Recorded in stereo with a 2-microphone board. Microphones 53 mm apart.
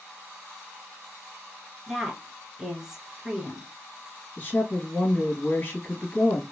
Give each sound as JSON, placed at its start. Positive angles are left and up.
{"t": 1.9, "sound": "a woman speaking", "side_deg": -5, "distance_m": 1.2}
{"t": 4.4, "sound": "a woman speaking", "side_deg": 30, "distance_m": 1.4}